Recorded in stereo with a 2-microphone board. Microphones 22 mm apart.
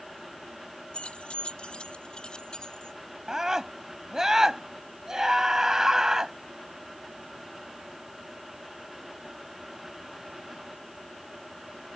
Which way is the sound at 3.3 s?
30° right (ahead or behind).